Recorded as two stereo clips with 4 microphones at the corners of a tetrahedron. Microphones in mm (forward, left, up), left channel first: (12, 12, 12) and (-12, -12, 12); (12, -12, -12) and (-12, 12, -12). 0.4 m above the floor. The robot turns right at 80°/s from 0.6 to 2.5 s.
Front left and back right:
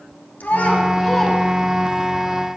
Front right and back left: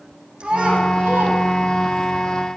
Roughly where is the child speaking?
Left.